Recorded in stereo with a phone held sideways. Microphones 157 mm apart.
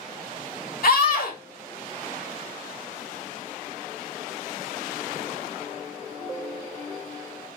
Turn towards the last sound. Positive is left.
turn(degrees=60)  # may be behind; listen again after turning